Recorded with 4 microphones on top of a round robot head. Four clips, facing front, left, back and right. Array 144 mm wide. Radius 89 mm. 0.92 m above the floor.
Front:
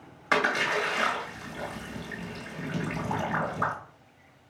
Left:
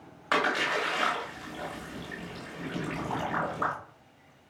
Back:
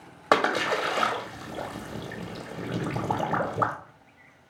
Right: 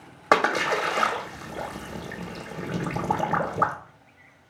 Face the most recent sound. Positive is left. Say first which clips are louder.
# right 6 dB, back 3 dB
turn(degrees=-130)